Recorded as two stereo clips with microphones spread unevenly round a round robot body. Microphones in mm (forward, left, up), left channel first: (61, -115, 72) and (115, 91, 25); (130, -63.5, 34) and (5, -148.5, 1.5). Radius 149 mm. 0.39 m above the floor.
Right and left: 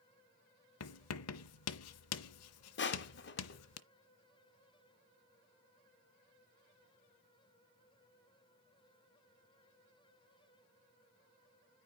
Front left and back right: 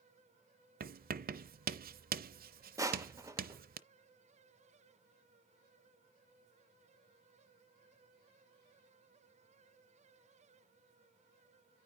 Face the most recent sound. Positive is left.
turn(degrees=-110)